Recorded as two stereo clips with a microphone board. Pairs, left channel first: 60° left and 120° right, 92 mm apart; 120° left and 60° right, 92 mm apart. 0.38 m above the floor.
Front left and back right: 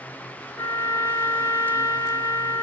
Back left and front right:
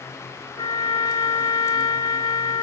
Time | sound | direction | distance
0.6 | a trumpet | 105° left | 0.9 m